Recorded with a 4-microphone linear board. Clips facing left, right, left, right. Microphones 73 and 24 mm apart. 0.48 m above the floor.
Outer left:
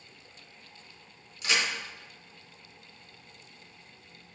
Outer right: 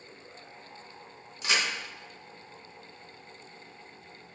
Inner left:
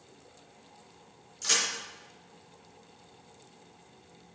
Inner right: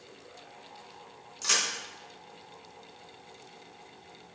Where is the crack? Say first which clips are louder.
Even, even; 30° right (ahead or behind), 3.5 m.